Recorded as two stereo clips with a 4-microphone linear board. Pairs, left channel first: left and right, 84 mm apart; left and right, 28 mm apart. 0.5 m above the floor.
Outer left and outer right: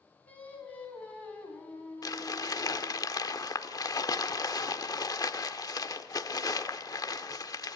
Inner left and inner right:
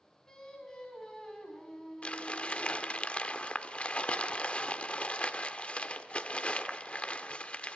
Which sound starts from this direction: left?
Crumpling, at 2.0 s.